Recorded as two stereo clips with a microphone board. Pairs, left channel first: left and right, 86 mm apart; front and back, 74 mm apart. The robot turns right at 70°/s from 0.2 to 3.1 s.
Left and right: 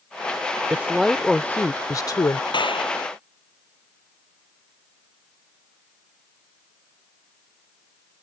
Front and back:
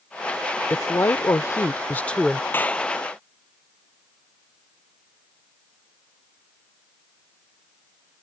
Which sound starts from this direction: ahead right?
A woman speaking, at 0.7 s.